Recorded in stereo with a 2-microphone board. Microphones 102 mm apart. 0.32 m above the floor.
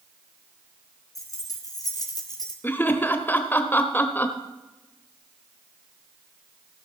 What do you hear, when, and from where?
1.1 s keys jangling: 35° left (ahead or behind), 2.5 m; by 2.5 s 45° left (ahead or behind), 1.9 m
2.6 s laughter: 20° left (ahead or behind), 0.9 m